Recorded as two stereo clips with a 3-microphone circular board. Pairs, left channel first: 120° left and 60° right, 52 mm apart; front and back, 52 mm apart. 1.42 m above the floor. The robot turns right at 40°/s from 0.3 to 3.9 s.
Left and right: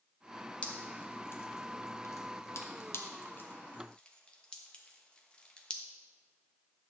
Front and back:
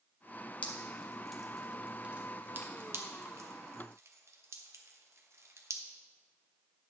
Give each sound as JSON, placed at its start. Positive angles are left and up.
{"t": 0.6, "sound": "dripping", "azimuth_deg": 55, "distance_m": 1.0}